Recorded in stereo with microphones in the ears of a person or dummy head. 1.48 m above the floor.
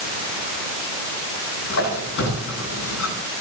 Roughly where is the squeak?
Left.